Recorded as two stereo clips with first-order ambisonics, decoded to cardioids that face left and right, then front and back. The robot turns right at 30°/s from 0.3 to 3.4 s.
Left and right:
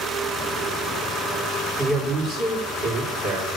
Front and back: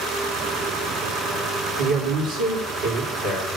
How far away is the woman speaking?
About 3.5 m.